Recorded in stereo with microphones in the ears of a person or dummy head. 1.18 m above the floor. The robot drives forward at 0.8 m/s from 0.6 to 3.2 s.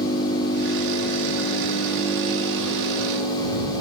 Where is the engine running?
50° left (ahead or behind), 1.7 m; by 3.8 s 25° left (ahead or behind), 3.5 m.